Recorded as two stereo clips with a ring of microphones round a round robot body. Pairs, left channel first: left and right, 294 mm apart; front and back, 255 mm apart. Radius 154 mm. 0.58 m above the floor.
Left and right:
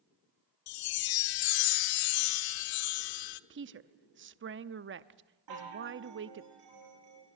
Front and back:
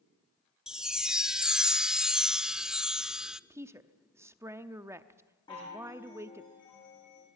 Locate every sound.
0.7 s a chime: 90° left, 0.8 m
3.5 s a woman speaking: 105° right, 0.8 m
5.5 s a chime: 75° right, 7.5 m